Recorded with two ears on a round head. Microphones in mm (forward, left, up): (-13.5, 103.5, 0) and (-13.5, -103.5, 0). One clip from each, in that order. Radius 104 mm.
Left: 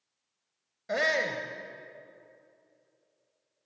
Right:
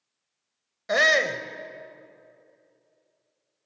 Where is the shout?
35° right (ahead or behind), 1.7 m.